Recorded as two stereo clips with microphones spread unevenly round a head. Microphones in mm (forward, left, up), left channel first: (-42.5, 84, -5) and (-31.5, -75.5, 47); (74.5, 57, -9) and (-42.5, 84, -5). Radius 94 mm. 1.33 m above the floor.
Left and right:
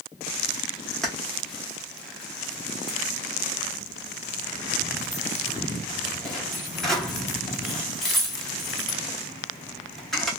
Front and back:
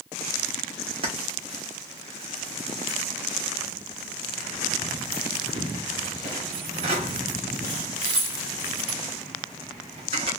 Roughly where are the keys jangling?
Behind.